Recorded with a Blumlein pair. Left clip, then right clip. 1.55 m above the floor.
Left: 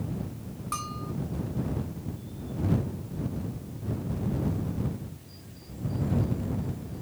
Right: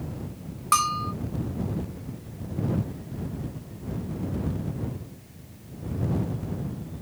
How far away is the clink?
No clink in this recording.